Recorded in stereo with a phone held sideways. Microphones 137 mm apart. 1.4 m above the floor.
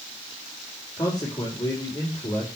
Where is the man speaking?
30° left (ahead or behind), 4.5 m.